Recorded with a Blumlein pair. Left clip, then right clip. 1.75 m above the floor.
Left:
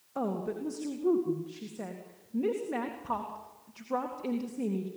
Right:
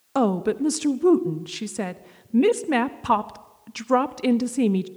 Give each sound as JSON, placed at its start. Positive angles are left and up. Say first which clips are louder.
{"t": 0.1, "sound": "a woman speaking", "louder": "right 12 dB", "azimuth_deg": -50, "distance_m": 0.9}